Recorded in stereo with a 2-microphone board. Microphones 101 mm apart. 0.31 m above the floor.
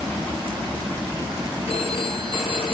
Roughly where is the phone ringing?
Left.